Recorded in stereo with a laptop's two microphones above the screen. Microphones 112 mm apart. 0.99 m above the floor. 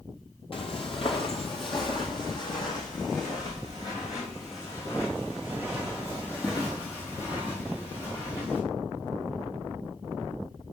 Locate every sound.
0.5 s footsteps: 50° left (ahead or behind), 1.5 m; by 8.6 s 20° left (ahead or behind), 5.5 m